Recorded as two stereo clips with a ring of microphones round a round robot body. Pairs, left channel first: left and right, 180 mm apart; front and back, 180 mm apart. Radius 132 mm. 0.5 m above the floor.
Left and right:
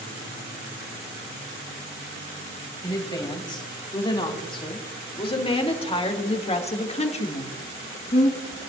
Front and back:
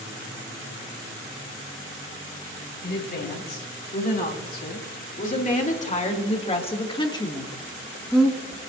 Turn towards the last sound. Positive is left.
turn(degrees=105)